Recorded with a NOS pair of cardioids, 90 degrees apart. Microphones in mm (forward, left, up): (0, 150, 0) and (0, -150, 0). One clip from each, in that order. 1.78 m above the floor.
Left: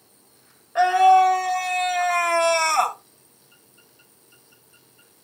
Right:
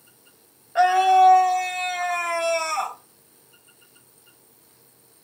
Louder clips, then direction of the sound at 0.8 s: Left 1 dB; 5° right.